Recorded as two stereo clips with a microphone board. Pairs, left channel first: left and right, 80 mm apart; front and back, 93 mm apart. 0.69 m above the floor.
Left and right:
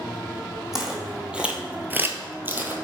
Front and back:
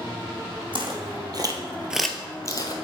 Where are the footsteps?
175° right, 1.5 m; by 2.7 s 25° right, 1.1 m.